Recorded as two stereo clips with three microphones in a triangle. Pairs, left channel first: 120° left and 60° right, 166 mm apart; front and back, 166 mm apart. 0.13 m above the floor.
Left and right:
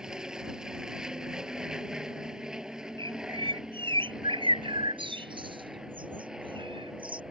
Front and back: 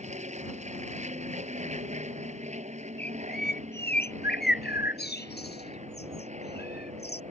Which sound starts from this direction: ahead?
A bird, at 3.0 s.